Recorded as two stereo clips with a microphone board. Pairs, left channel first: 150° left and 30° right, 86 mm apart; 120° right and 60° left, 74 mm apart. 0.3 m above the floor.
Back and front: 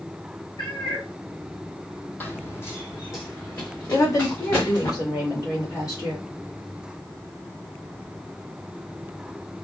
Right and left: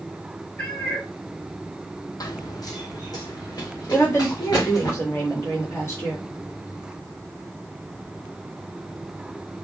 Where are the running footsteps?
140° right, 0.6 m; by 4.9 s 155° right, 3 m.